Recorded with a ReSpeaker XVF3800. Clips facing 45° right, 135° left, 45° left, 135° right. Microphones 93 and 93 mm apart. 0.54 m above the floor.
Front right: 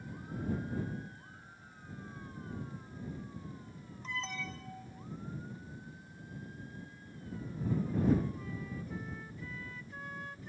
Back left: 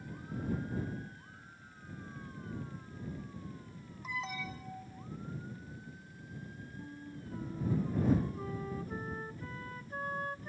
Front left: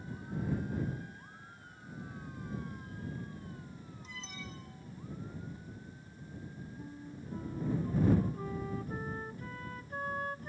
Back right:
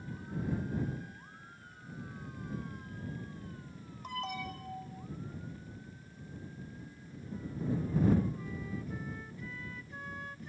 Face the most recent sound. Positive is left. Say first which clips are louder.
# back left 4 dB, front left 3 dB
turn(degrees=90)